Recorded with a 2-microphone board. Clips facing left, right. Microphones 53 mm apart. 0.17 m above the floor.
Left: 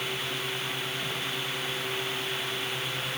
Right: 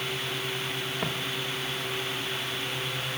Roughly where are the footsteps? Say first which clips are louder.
Right 3 dB; right.